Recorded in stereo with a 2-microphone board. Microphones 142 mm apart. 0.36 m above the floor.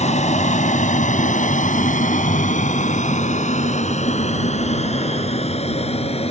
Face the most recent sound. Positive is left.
turn(degrees=45)  # may be behind; listen again after turning